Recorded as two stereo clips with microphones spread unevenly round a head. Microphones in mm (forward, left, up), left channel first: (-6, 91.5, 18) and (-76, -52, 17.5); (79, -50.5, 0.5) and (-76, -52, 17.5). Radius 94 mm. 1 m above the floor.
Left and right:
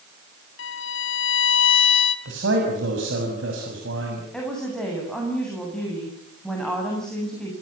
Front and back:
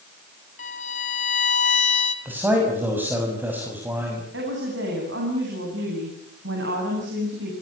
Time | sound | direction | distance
0.6 | a violin | 55° left | 1.8 m
2.2 | a man speaking | 100° right | 6.5 m
4.3 | a woman speaking | 150° left | 8.5 m